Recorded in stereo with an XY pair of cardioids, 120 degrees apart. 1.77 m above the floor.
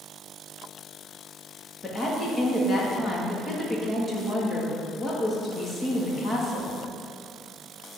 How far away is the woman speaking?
About 2.5 m.